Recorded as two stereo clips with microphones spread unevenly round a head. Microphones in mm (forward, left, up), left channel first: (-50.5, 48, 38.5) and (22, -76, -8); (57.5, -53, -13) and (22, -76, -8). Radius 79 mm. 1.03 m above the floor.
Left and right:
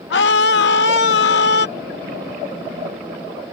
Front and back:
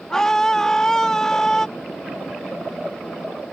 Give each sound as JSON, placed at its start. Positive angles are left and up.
{"t": 0.1, "sound": "a scream", "azimuth_deg": 115}